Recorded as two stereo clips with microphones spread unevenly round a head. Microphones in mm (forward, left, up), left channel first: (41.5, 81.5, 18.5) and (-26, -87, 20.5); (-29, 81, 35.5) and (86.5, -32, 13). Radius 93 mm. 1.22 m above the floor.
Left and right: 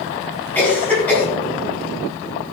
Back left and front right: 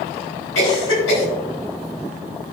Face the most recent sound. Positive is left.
turn(degrees=150)